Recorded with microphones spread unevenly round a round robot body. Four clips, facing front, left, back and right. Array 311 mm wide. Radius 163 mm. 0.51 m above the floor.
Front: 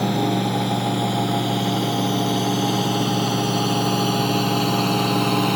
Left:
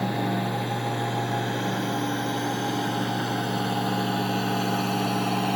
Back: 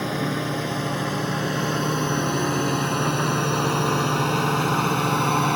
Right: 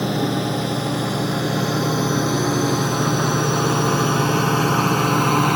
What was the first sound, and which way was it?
A drone, 115° right.